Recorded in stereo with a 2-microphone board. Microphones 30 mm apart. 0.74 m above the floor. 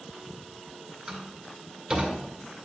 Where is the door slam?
20° right (ahead or behind), 1.9 m.